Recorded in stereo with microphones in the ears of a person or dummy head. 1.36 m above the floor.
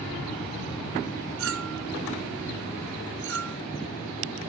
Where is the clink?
70° right (ahead or behind).